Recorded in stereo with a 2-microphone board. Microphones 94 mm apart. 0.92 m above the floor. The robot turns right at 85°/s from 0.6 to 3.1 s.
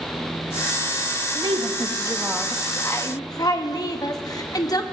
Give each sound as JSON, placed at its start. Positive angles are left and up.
{"t": 1.4, "sound": "a woman speaking", "azimuth_deg": -100, "distance_m": 1.0}